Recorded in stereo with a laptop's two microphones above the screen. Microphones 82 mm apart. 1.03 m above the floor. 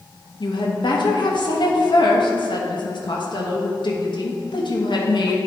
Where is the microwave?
I don't hear a microwave.